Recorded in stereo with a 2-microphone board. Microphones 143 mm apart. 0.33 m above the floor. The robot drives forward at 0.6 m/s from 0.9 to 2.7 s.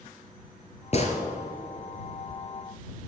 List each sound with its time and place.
0.9 s a gunshot: 45° left (ahead or behind), 2.5 m; by 1.2 s 50° left (ahead or behind), 2 m